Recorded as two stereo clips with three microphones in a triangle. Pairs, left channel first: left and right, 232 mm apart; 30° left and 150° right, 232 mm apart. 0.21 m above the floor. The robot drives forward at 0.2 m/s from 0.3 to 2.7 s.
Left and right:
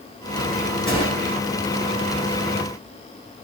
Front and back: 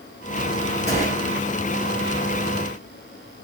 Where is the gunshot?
155° left, 2.5 m.